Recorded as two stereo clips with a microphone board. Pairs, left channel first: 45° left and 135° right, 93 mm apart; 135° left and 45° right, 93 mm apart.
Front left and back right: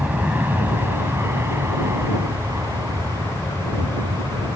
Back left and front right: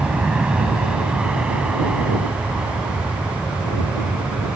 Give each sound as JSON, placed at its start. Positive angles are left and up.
{"t": 0.0, "sound": "an aircraft", "azimuth_deg": -105}